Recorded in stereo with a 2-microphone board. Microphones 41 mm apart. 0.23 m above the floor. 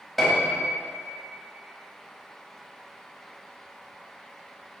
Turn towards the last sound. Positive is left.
turn(degrees=5)  # may be behind; listen again after turning